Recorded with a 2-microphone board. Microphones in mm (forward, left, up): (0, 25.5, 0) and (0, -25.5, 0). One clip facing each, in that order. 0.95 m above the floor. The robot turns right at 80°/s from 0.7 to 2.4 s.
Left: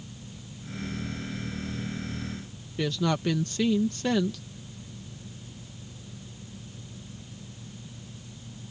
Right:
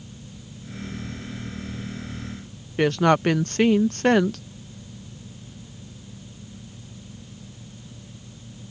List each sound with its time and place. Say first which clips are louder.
2.8 s a woman speaking: right 9 dB; 50° right (ahead or behind)